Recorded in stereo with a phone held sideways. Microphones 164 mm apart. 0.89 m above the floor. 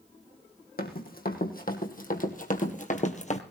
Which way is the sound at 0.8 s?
60° left (ahead or behind).